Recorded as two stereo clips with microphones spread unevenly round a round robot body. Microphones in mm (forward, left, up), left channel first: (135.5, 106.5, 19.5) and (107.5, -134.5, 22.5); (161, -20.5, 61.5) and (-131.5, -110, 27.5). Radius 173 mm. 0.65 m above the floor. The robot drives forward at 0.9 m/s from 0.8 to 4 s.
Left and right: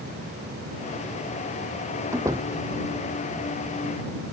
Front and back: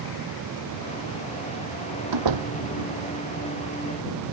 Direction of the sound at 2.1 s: Straight behind.